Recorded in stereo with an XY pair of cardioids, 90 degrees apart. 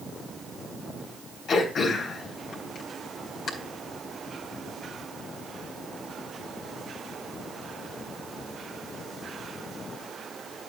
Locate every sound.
1.5 s throat clearing: 70° left, 4 m